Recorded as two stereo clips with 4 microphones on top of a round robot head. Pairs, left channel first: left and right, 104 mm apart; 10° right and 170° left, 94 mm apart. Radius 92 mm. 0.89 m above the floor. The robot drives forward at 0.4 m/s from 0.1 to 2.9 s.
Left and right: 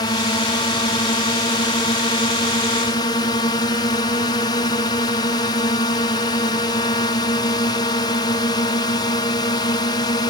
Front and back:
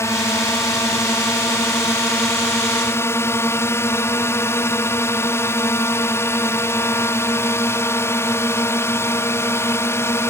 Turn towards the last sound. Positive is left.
turn(degrees=45)